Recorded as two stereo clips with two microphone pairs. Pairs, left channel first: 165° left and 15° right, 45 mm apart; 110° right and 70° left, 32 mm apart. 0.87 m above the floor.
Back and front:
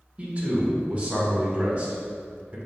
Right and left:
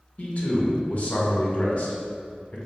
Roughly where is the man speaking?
Right.